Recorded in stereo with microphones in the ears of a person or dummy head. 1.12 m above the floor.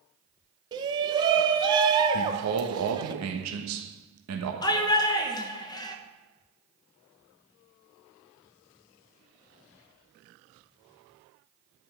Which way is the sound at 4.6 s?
20° left (ahead or behind).